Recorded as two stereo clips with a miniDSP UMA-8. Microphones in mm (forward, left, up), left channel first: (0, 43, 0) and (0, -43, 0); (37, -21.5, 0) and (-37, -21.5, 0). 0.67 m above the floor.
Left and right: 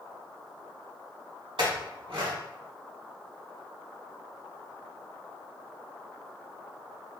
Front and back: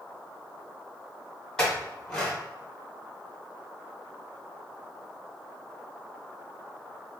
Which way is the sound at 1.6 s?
80° right.